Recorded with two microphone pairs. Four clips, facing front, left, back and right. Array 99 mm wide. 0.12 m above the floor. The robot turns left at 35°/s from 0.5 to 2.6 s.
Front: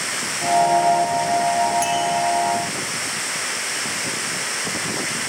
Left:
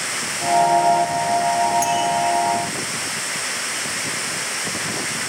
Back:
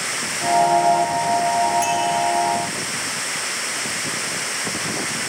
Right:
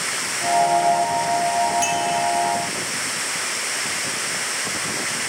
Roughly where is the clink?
Behind right.